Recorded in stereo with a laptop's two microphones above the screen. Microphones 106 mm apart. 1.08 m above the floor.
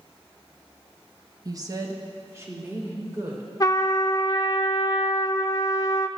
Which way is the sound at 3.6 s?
35° left (ahead or behind).